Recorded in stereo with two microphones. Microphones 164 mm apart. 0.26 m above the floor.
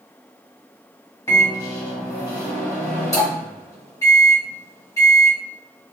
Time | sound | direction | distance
1.3 | a microwave | 20° left (ahead or behind) | 1.4 m